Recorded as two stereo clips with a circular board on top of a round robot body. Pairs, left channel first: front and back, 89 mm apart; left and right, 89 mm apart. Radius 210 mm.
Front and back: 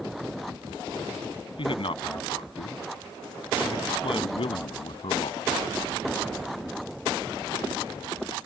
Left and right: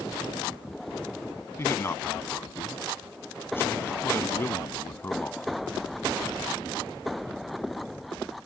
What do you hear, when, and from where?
1.6 s a man speaking: 25° left; by 5.5 s 20° left